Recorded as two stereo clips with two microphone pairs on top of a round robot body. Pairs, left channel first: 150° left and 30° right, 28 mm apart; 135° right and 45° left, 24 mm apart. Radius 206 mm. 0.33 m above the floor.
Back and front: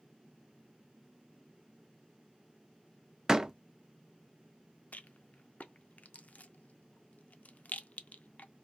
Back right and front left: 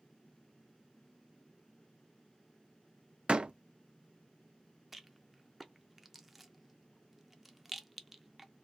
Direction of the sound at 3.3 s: 25° left.